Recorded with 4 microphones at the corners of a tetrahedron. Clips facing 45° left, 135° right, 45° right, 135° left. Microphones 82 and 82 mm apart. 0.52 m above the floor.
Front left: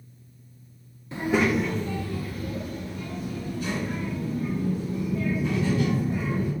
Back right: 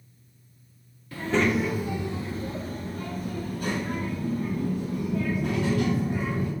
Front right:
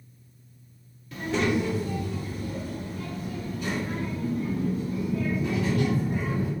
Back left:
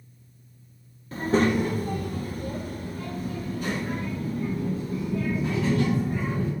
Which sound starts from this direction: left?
A child speaking, at 1.1 s.